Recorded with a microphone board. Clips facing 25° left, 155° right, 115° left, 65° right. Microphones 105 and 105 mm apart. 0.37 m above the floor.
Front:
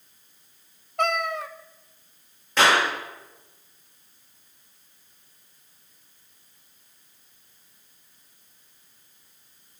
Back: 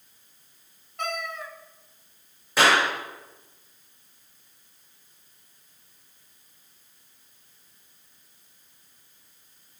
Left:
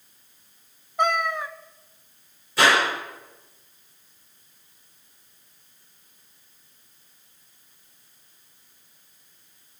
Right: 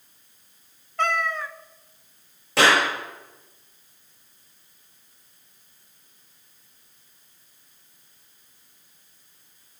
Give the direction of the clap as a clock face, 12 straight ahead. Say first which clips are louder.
Even, right 1 dB; 3 o'clock.